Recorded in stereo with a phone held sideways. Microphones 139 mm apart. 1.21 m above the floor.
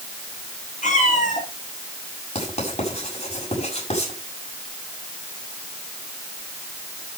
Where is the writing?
50° left (ahead or behind), 6.5 m.